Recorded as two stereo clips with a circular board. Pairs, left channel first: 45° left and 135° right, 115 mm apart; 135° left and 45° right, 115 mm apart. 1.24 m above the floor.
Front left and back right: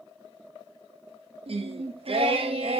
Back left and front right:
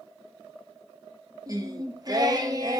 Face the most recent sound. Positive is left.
turn(degrees=-100)